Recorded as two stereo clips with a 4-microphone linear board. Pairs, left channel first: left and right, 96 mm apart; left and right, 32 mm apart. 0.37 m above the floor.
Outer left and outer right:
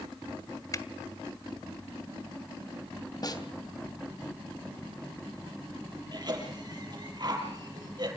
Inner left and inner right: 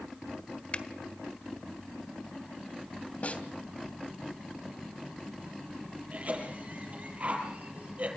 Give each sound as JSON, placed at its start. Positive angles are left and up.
{"t": 0.7, "sound": "a finger snap", "side_deg": 35, "distance_m": 1.3}
{"t": 3.2, "sound": "a snare drum", "side_deg": 45, "distance_m": 2.5}
{"t": 6.1, "sound": "a cough", "side_deg": -50, "distance_m": 8.5}